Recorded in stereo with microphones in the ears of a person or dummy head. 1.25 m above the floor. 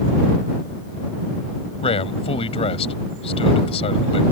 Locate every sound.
1.8 s a man speaking: 30° left (ahead or behind)